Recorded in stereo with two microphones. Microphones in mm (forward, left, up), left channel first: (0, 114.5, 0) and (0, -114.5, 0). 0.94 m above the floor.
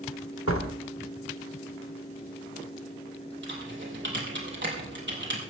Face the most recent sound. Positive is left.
turn(degrees=-55)  # may be behind; listen again after turning